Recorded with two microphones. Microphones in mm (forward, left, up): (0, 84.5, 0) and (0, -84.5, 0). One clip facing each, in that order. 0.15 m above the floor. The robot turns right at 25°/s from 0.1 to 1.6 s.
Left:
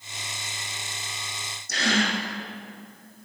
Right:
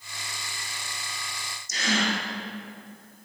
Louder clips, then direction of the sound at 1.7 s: Left 2 dB; 65° left (ahead or behind).